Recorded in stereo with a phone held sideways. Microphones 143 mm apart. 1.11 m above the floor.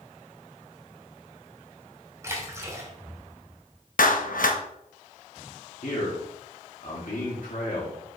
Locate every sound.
2.2 s a splash: 20° right (ahead or behind), 2.5 m
4.0 s a clap: 75° left (ahead or behind), 0.9 m
5.8 s a man speaking: 70° left (ahead or behind), 3 m